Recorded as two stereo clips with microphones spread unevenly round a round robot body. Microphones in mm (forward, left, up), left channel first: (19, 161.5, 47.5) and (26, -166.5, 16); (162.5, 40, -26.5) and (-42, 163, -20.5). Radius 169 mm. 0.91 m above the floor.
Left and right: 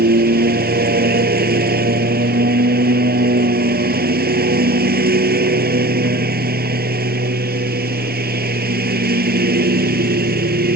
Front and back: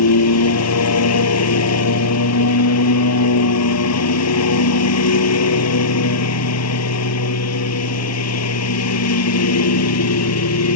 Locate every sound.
0.0 s a lawn mower: 25° right